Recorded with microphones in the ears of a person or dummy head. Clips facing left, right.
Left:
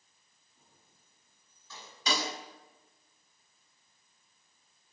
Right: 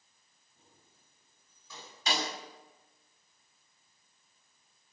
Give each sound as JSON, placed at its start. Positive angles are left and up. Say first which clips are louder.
{"t": 0.6, "sound": "keys jangling", "louder": "right 2 dB", "side_deg": -15, "distance_m": 8.5}
{"t": 2.1, "sound": "a snare drum", "louder": "left 1 dB", "side_deg": 80, "distance_m": 6.0}